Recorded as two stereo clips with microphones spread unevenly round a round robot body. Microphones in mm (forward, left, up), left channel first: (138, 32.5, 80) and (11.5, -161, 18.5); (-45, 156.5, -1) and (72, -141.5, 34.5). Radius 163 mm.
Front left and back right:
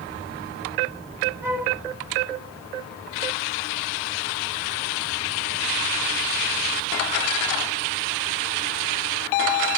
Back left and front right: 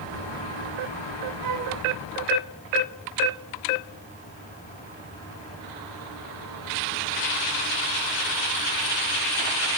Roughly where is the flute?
Ahead right.